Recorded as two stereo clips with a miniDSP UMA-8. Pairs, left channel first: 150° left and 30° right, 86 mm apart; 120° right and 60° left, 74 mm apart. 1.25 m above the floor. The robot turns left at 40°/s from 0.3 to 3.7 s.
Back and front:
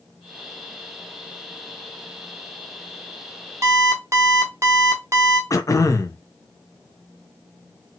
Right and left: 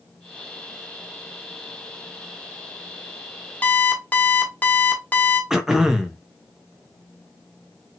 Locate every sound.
3.6 s an alarm clock: 55° right, 1.0 m; by 5.4 s 60° right, 1.0 m
5.5 s throat clearing: 140° left, 0.5 m